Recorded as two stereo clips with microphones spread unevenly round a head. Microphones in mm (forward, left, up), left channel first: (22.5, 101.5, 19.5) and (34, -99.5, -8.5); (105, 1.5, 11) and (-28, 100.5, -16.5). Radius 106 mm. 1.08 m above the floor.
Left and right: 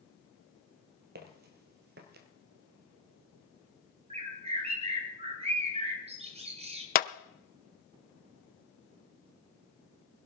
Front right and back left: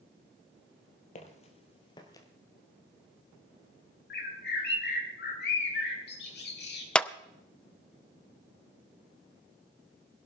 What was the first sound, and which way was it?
Footsteps, 55° right.